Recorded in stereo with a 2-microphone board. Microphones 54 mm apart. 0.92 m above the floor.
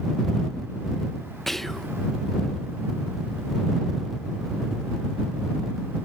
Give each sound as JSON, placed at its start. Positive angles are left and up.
{"t": 1.5, "sound": "whispering", "side_deg": 5}